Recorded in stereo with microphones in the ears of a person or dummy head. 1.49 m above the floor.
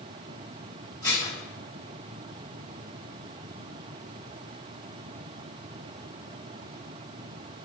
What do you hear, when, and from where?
1.0 s dishes clattering: 25° left (ahead or behind), 1.4 m